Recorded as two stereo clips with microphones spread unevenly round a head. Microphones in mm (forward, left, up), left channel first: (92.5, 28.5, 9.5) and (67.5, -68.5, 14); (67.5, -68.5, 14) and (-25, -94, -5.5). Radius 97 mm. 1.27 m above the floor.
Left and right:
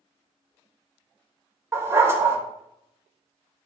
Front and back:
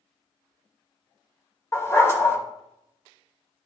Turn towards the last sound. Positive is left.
turn(degrees=-40)